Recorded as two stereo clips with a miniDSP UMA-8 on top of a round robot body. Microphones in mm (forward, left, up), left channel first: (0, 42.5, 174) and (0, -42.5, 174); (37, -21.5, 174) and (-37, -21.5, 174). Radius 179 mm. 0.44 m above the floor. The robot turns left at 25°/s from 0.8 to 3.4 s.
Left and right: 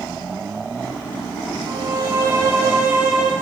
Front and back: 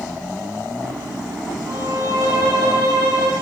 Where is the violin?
135° right, 5 m; by 3.3 s 175° right, 5 m.